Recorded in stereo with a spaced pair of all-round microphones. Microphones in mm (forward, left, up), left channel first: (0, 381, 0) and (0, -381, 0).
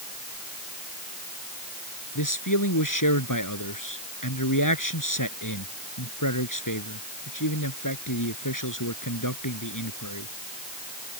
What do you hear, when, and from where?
2.1 s a man speaking: 25° left (ahead or behind)